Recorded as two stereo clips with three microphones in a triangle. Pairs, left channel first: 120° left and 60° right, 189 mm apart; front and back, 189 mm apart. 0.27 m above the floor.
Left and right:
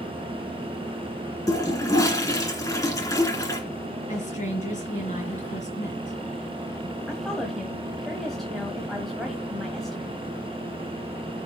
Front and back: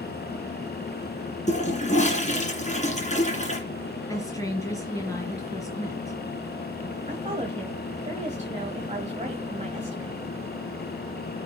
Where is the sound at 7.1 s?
150° right, 1.5 m.